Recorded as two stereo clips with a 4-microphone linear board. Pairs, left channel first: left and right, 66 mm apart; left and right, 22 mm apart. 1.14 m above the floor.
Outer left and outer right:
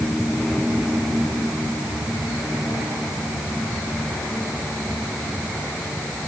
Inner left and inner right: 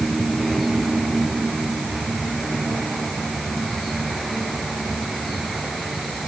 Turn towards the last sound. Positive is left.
No sound to turn to.